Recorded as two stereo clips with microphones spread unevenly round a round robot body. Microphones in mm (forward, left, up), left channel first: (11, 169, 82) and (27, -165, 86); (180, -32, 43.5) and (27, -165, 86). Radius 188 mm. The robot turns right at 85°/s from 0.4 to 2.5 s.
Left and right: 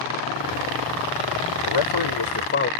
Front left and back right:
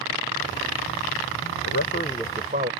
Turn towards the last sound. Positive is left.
turn(degrees=155)